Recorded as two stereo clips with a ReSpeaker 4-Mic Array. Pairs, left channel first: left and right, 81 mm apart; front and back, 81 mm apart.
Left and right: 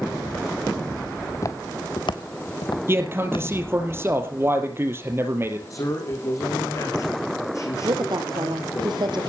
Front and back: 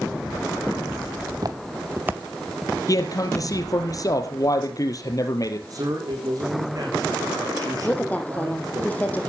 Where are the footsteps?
145° left, 1.8 m; by 3.5 s 75° left, 2.5 m.